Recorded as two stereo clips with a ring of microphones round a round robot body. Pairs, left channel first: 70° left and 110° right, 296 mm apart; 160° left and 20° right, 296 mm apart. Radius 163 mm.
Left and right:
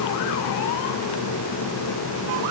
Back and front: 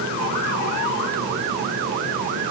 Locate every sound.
Only background noise.